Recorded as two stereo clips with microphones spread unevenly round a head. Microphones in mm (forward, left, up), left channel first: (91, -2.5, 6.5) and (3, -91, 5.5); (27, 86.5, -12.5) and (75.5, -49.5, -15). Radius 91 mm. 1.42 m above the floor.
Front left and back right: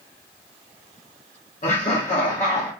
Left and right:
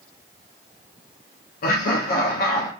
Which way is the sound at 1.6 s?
90° left.